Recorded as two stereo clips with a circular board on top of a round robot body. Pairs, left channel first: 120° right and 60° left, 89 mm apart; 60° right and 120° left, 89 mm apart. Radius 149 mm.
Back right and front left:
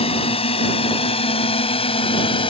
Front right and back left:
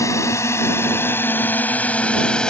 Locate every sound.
0.0 s a drone: 115° right; by 2.5 s 140° right